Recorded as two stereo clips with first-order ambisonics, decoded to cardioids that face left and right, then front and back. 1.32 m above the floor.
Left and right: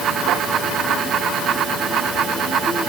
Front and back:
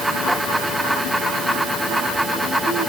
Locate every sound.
Only background noise.